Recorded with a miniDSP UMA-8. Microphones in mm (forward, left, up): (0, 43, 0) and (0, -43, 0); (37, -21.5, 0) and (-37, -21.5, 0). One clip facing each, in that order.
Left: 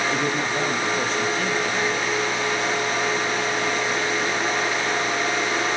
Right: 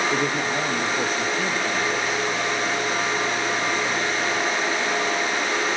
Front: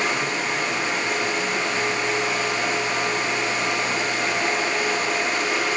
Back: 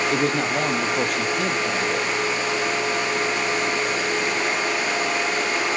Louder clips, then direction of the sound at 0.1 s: Even, back 3 dB; 175° right.